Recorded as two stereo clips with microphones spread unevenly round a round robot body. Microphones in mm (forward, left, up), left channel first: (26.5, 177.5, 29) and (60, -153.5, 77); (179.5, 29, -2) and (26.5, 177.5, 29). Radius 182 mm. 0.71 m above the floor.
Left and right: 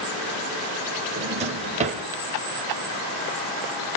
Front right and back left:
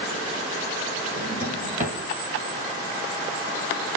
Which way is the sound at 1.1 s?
155° right.